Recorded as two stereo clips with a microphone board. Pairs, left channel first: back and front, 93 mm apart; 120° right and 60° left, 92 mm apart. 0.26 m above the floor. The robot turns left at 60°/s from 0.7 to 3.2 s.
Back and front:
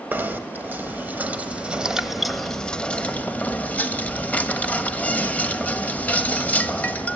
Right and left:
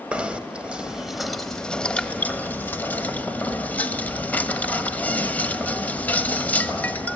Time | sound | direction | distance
0.1 | knocking | straight ahead | 1.2 m